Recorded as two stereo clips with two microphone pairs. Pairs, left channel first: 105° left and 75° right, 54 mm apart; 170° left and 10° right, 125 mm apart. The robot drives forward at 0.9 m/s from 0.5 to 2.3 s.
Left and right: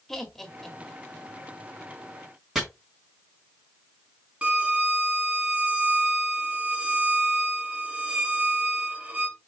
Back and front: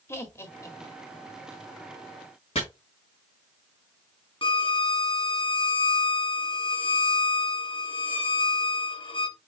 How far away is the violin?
About 1.0 m.